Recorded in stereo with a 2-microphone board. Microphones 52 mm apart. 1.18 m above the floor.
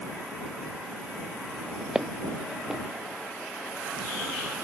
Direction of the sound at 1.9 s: 10° right (ahead or behind).